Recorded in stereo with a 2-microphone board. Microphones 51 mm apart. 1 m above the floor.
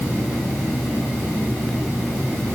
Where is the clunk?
No clunk in this recording.